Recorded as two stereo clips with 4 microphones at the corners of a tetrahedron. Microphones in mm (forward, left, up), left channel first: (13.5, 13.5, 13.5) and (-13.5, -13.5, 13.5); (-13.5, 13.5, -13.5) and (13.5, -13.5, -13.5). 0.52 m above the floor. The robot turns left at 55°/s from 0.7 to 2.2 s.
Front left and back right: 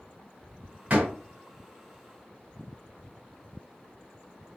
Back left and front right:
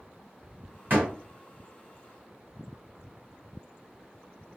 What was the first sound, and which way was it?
A door slam, 80° right.